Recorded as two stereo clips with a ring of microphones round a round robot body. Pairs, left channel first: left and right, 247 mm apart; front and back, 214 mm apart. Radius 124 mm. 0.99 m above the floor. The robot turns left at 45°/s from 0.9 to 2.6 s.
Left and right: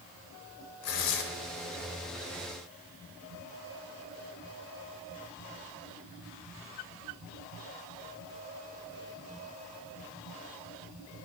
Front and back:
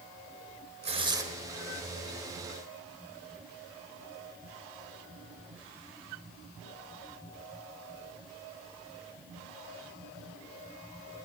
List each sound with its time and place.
0.8 s tearing paper: 120° left, 1.9 m; by 1.2 s 105° left, 1.9 m